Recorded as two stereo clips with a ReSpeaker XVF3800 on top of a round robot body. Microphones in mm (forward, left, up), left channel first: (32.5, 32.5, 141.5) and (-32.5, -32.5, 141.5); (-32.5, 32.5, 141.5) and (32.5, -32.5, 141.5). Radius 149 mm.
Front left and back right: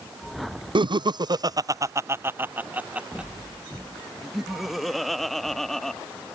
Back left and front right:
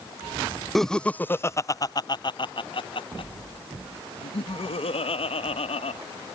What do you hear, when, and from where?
0.8 s laughter: 135° right; by 6.0 s 130° left